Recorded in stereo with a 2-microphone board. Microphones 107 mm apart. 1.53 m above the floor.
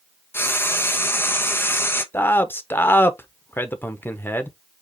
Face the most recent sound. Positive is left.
turn(degrees=20)  # may be behind; listen again after turning